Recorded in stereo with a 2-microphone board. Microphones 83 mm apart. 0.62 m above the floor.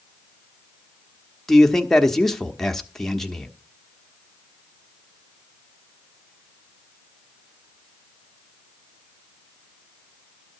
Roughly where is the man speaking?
Centre.